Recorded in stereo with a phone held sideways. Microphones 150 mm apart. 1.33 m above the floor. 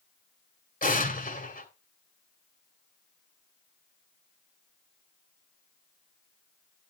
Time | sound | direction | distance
0.8 | an explosion | 65° left (ahead or behind) | 1.9 m